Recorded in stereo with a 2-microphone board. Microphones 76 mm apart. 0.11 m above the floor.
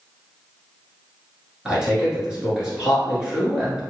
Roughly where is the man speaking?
Centre.